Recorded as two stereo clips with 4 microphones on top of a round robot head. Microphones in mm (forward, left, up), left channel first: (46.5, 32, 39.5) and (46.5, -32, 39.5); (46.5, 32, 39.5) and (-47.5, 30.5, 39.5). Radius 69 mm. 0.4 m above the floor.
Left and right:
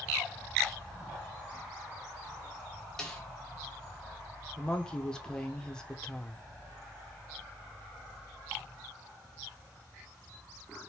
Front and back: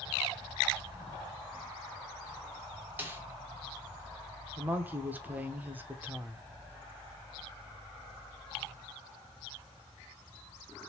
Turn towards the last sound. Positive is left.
turn(degrees=145)